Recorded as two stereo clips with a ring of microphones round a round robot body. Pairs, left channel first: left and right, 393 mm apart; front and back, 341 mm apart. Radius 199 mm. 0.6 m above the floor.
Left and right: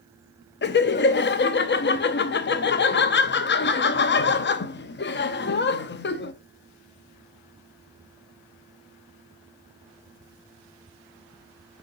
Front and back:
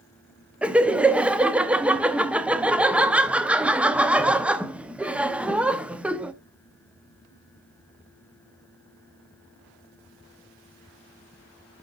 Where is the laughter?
95° left, 0.6 m.